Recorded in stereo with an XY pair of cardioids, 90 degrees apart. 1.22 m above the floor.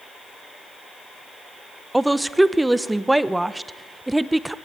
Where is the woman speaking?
10° right, 0.8 m.